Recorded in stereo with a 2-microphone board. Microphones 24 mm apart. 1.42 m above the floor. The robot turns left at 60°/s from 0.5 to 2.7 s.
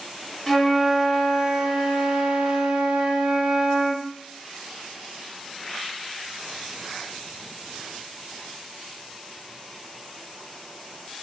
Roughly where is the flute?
Ahead.